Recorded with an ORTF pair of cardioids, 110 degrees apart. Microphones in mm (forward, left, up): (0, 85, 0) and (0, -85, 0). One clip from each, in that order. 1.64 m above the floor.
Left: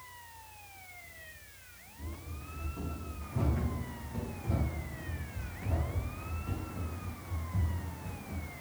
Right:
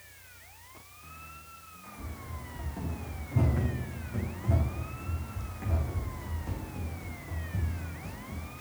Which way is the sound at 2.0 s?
35° right.